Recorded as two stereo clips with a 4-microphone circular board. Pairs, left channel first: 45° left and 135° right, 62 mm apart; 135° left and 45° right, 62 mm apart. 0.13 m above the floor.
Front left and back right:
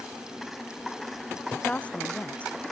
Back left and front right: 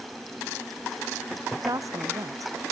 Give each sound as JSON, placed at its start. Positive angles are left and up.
{"t": 1.6, "sound": "a woman speaking", "azimuth_deg": -25}